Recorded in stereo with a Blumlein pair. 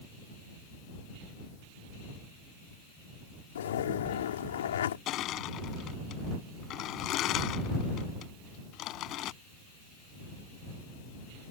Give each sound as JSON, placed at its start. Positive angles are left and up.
{"t": 3.5, "sound": "a zipper", "azimuth_deg": 60}
{"t": 5.1, "sound": "crushing", "azimuth_deg": 35}